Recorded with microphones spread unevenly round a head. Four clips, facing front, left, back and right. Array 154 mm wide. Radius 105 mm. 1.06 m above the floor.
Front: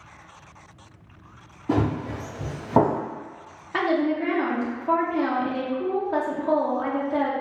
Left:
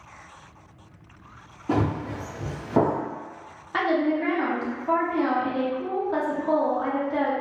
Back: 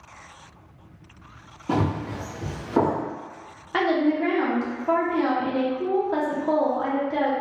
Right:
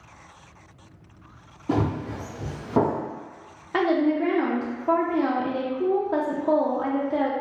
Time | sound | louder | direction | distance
1.7 | running footsteps | even, front 1 dB | 100° right | 1.2 m
3.7 | a woman speaking | right 2 dB, back 1 dB | 95° right | 0.5 m